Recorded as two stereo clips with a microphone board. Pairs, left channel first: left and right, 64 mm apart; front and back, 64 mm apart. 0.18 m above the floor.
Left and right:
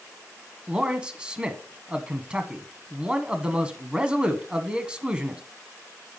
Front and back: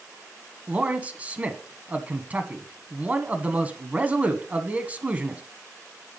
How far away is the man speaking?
About 1.1 m.